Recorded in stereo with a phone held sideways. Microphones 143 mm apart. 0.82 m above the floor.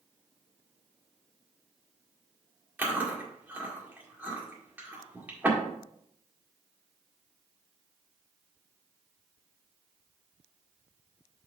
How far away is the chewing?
About 1.8 m.